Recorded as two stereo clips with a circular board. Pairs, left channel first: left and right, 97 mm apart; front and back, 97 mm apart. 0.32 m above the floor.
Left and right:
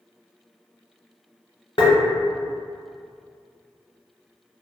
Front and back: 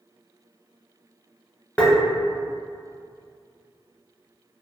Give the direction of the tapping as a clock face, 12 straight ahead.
10 o'clock.